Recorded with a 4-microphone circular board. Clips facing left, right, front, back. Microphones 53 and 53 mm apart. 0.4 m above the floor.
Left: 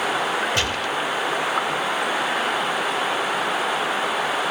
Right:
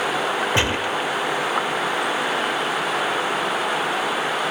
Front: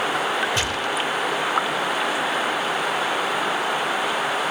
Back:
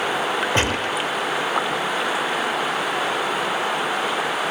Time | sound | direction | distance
0.6 | a gunshot | 145° right | 0.8 m